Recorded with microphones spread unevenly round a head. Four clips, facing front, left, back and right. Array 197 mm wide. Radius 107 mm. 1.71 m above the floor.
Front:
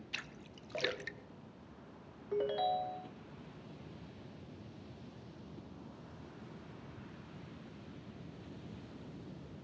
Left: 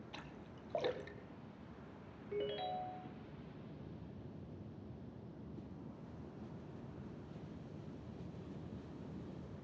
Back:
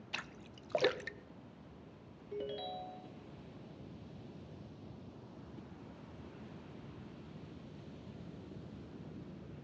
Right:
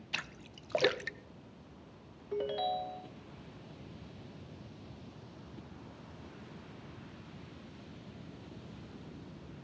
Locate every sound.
0.1 s a splash: 105° right, 0.7 m
2.3 s a ringtone: 35° right, 0.9 m